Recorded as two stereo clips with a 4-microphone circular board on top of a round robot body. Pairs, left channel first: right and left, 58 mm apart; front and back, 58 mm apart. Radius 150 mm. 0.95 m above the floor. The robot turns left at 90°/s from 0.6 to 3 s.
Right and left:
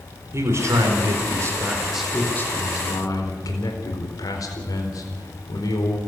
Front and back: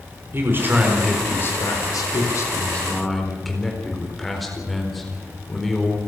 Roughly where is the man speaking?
Behind left.